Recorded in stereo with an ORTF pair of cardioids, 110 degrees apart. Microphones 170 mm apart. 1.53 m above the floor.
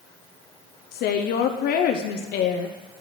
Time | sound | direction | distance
0.9 | a woman speaking | 65° left | 0.7 m